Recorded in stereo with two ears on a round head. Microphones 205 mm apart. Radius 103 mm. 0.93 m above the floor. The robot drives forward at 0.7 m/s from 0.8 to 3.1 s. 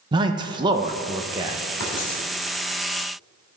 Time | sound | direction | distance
0.1 | a man speaking | 20° right (ahead or behind) | 0.6 m
1.8 | writing | 60° left (ahead or behind) | 3 m